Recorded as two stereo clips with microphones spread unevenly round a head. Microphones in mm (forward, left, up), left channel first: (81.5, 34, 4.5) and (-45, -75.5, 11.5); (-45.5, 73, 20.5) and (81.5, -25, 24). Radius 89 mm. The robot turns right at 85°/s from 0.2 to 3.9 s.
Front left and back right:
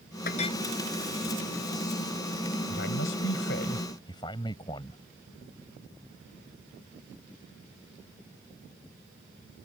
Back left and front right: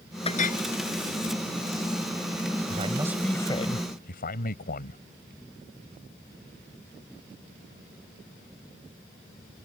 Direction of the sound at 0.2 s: 85° left.